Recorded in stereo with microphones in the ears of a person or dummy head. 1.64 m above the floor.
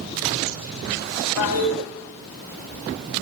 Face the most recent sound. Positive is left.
turn(degrees=70)  # may be behind; listen again after turning